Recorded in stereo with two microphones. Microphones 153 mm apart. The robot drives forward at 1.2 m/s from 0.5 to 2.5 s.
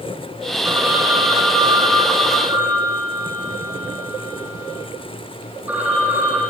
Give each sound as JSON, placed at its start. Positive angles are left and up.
{"t": 0.7, "sound": "a phone ringing", "side_deg": -15, "distance_m": 3.5}